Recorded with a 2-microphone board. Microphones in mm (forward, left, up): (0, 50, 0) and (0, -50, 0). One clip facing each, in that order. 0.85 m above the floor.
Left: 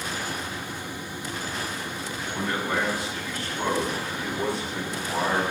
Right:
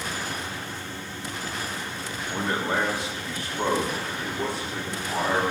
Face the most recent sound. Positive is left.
turn(degrees=10)  # may be behind; listen again after turning